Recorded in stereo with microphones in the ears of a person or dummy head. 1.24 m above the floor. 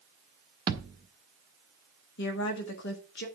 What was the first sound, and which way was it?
A thud, 25° right (ahead or behind).